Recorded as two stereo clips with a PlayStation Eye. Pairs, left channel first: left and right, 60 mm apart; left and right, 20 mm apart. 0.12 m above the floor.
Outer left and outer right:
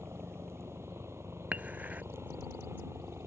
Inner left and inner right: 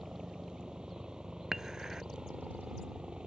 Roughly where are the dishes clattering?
Right.